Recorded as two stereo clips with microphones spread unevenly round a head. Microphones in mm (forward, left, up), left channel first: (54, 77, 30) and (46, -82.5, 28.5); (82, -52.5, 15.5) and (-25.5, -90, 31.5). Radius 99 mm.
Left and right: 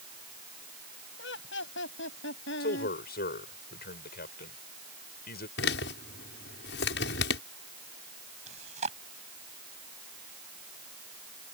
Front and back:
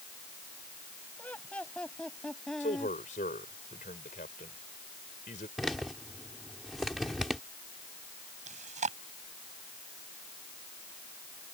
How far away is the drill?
No drill in this recording.